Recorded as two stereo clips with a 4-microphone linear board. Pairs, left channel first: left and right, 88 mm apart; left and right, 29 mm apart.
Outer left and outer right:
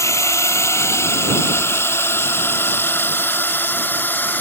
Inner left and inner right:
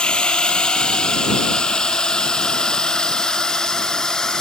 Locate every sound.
0.0 s a drone: 35° left (ahead or behind); by 4.4 s 25° left (ahead or behind)